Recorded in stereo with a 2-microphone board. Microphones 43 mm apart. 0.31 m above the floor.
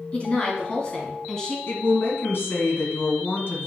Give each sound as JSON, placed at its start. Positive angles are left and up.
{"t": 0.1, "sound": "a woman speaking", "side_deg": 30, "distance_m": 2.5}
{"t": 1.7, "sound": "a woman speaking", "side_deg": 60, "distance_m": 2.5}